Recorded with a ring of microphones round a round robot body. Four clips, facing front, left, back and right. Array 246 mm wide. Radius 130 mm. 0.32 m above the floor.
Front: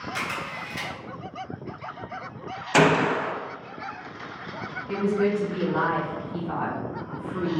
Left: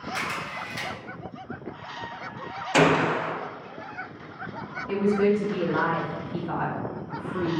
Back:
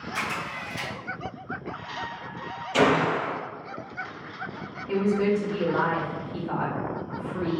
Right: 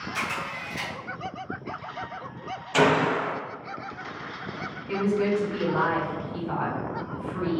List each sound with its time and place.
0.1 s a camera shutter: 40° left, 1.9 m
2.7 s a gunshot: 25° left, 0.5 m
4.9 s a woman speaking: 100° left, 1.5 m